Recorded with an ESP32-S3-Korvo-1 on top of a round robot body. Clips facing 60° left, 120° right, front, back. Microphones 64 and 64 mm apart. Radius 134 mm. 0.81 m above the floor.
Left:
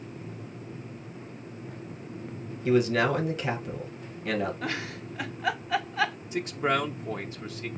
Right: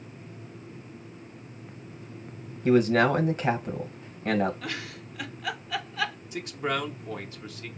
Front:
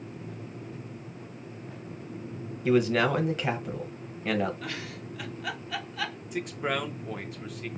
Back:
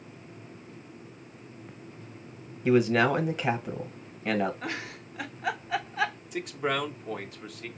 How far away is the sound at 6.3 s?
About 0.9 m.